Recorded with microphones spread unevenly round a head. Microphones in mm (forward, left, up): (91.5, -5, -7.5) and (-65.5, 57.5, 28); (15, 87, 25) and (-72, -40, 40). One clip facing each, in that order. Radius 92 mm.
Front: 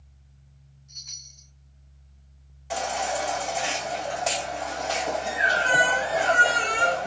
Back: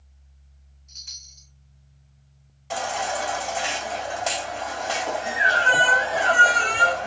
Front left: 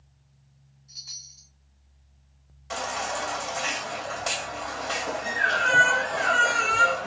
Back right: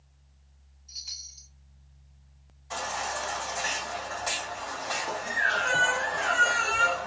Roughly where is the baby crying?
Left.